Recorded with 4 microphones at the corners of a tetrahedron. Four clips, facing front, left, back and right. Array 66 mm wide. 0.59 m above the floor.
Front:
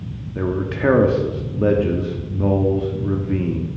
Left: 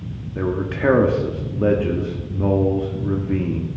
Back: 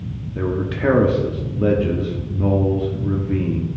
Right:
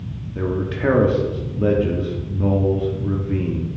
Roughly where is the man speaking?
Ahead left.